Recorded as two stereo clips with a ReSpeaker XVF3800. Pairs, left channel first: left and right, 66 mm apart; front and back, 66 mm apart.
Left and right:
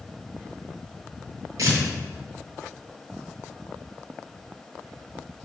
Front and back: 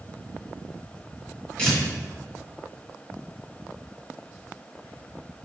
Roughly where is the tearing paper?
Right.